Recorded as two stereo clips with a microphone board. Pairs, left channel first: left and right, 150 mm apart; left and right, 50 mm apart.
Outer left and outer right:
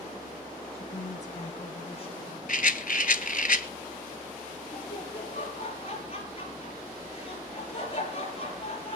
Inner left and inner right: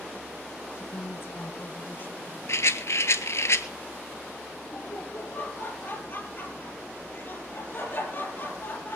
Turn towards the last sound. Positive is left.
turn(degrees=45)  # may be behind; listen again after turning